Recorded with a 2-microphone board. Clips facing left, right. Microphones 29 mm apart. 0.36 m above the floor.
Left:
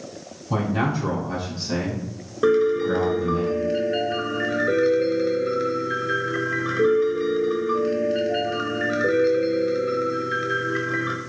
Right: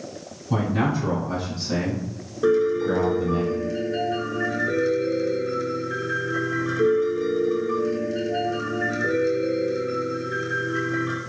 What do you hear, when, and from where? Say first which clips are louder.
0.5 s a man speaking: even; 35° left (ahead or behind), 1.9 m; by 3.4 s 20° right (ahead or behind), 1.4 m
2.4 s a piano: left 1 dB; 35° left (ahead or behind), 0.7 m